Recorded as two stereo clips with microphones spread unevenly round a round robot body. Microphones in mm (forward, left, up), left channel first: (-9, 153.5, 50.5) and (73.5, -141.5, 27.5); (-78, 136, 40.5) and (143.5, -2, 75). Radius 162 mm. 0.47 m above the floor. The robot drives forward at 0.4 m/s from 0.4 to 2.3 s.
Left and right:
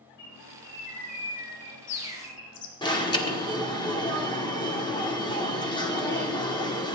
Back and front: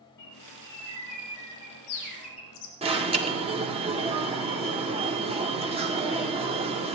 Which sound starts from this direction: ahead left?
An alarm, at 2.8 s.